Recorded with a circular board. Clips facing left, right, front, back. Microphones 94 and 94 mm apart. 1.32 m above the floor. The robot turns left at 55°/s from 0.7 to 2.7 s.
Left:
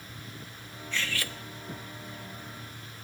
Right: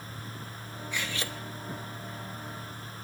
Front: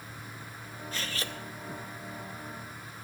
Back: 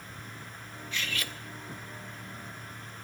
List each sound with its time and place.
0.9 s cutlery clinking: 15° right, 0.8 m; by 1.4 s 40° right, 0.8 m